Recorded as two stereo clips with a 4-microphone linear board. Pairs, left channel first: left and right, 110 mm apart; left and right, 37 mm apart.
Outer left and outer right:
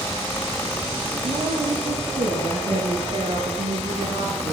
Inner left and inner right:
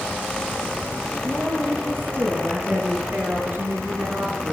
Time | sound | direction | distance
1.2 | a woman speaking | 75° right (ahead or behind) | 7 m